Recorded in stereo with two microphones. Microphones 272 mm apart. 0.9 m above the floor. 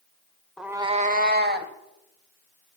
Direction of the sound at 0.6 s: Centre (ahead or behind).